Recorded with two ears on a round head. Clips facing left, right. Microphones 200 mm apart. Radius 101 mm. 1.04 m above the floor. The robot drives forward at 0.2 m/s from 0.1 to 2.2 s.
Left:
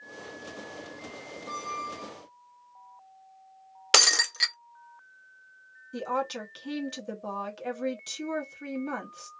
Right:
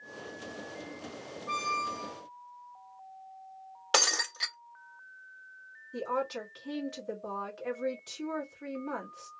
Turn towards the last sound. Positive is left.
turn(degrees=45)  # may be behind; listen again after turning